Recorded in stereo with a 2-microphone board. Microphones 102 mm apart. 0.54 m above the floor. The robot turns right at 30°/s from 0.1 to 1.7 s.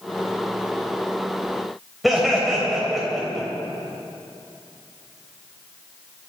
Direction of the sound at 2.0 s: Centre (ahead or behind).